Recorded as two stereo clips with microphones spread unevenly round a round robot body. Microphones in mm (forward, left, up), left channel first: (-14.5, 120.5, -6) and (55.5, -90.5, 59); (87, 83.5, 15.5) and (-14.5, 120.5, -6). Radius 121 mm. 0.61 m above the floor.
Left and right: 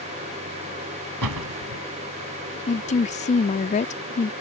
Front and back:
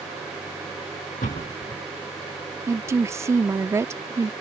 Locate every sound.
1.2 s a door slam: 80° right
2.7 s a woman speaking: 120° left